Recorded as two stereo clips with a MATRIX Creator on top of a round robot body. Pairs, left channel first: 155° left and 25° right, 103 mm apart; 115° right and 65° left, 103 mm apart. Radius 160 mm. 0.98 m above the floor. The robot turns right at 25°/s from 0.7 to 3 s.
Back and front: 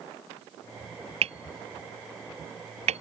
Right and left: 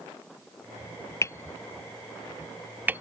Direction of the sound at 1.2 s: 50° right.